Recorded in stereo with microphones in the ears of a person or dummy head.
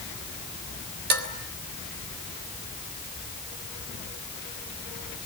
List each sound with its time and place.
1.1 s dishes clattering: 55° right (ahead or behind), 3 m